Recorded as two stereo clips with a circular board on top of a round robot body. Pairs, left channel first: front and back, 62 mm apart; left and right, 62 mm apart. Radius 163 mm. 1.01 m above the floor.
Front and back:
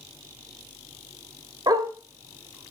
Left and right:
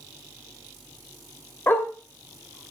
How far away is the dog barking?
About 1.7 m.